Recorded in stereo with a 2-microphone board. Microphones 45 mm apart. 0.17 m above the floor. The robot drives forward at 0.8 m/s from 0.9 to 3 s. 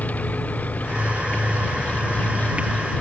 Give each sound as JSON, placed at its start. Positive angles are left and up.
{"t": 0.0, "sound": "an engine running", "side_deg": 35}